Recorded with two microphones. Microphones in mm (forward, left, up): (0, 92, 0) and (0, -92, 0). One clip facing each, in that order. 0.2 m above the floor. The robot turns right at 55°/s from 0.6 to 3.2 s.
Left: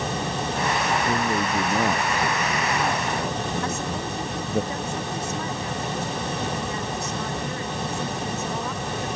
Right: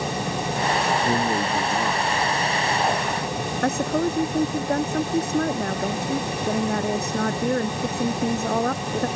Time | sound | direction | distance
1.0 | a man speaking | 20° right | ?
3.6 | a woman speaking | 60° right (ahead or behind) | ?